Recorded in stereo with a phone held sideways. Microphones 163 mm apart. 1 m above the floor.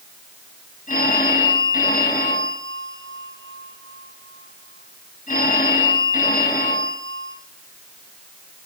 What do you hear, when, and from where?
0.9 s a phone ringing: 55° left (ahead or behind), 6 m